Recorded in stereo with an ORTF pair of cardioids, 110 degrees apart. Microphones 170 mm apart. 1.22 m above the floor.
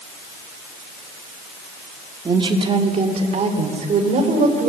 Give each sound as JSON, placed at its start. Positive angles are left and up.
{"t": 2.2, "sound": "a woman speaking", "azimuth_deg": -25, "distance_m": 3.0}